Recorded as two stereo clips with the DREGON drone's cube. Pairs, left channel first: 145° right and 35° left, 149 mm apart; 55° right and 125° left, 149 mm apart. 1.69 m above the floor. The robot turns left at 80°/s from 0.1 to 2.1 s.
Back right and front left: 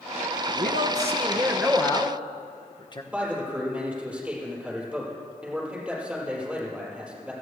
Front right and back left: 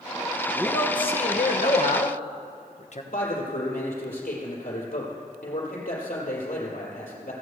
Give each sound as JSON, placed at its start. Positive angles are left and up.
{"t": 0.6, "sound": "a man speaking", "azimuth_deg": 35, "distance_m": 1.2}
{"t": 3.1, "sound": "a man speaking", "azimuth_deg": -50, "distance_m": 4.5}